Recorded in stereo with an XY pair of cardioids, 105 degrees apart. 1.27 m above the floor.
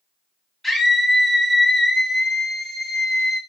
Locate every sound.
0.6 s a scream: 10° right, 1.0 m